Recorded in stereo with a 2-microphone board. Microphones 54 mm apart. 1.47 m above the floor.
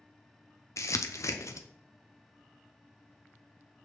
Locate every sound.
0.8 s crumpling: 70° left (ahead or behind), 0.7 m